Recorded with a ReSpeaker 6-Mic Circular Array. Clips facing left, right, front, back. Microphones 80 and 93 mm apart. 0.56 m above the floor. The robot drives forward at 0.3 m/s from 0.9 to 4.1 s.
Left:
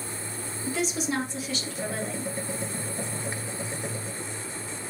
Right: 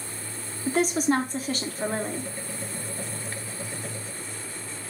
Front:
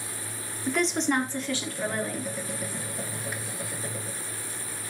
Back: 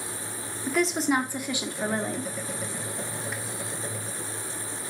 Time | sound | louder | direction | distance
0.7 | a woman speaking | right 6 dB, back 1 dB | 90° right | 0.8 m